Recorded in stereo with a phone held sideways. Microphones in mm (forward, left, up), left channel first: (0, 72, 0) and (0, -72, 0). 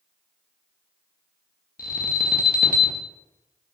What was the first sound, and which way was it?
An alarm, 75° left (ahead or behind).